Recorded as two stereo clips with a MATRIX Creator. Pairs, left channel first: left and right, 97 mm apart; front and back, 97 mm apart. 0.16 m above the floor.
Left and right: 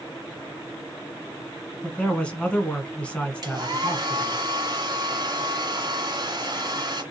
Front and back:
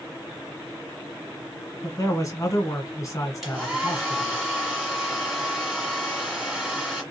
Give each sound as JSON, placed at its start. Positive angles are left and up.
{"t": 1.8, "sound": "a man speaking", "azimuth_deg": 20, "distance_m": 1.3}
{"t": 3.4, "sound": "a hair dryer", "azimuth_deg": -90, "distance_m": 2.0}